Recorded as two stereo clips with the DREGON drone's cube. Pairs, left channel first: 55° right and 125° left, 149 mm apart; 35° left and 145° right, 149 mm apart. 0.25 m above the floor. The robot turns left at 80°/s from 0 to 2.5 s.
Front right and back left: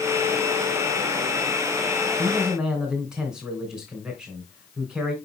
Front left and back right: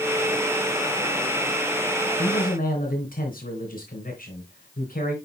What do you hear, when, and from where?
2.2 s a man speaking: 65° left, 3 m; by 5.2 s 40° left, 3 m